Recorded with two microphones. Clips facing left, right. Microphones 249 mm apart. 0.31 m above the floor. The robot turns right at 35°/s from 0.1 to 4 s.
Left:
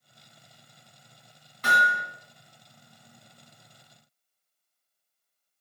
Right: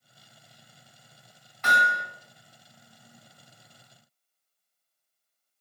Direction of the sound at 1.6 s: 40° left (ahead or behind).